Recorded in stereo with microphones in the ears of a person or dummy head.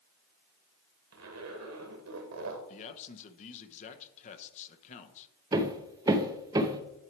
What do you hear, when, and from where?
1.1 s a zipper: 75° right (ahead or behind), 1.4 m
2.7 s a man speaking: 40° left (ahead or behind), 0.9 m
5.5 s hammering: 15° right (ahead or behind), 0.6 m